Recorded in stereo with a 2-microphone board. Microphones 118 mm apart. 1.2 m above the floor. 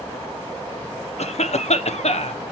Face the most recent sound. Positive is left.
turn(degrees=70)  # may be behind; listen again after turning